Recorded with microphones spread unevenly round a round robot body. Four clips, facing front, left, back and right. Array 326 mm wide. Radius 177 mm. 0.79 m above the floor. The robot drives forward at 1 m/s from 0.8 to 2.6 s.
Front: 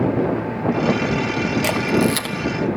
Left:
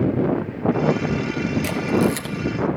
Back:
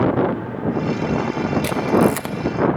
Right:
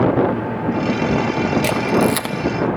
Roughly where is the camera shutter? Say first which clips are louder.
Right 1 dB, back 3 dB; ahead right.